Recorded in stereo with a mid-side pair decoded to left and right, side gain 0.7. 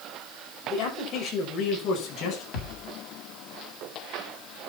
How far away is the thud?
About 3.5 m.